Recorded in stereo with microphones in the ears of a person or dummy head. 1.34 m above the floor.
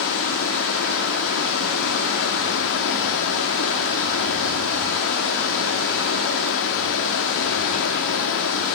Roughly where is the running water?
Left.